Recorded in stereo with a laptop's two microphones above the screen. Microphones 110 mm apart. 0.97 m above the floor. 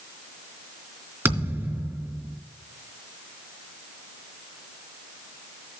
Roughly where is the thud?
Right.